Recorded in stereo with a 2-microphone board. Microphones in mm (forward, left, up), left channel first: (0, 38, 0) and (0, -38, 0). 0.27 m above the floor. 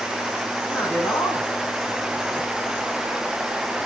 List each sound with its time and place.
0.7 s a man speaking: 25° left (ahead or behind), 2.5 m